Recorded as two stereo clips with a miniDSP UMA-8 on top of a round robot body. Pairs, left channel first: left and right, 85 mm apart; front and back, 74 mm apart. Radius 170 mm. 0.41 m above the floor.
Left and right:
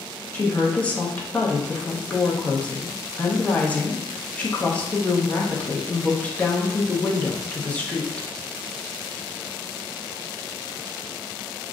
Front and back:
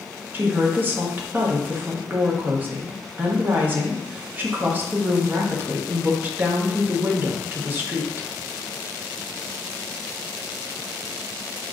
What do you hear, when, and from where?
0.3 s a woman speaking: 150° left, 1.1 m